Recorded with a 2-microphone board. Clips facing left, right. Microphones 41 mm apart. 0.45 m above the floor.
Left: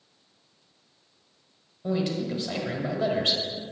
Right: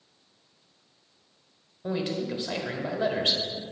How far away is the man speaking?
About 1.4 m.